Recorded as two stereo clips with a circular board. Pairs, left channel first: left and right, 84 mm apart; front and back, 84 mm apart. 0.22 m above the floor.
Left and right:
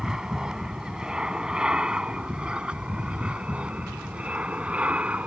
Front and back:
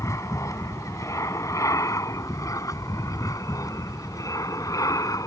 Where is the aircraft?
15° right; by 5.3 s 20° right.